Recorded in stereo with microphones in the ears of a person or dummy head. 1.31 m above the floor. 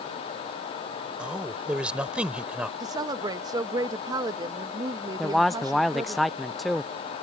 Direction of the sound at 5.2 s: Centre (ahead or behind).